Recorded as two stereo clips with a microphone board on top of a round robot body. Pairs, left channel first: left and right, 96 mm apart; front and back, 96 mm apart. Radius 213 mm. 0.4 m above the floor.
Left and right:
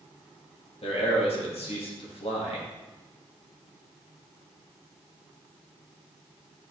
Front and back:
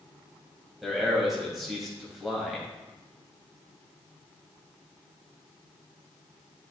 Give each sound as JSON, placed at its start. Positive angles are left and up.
{"t": 0.8, "sound": "a man speaking", "azimuth_deg": 95, "distance_m": 3.0}